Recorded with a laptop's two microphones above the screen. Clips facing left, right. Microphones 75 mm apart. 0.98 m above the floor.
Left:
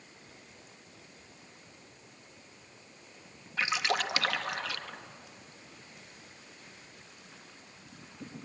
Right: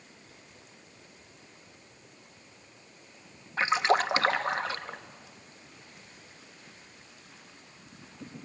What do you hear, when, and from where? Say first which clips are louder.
3.6 s a splash: right 6 dB; 35° right (ahead or behind), 0.9 m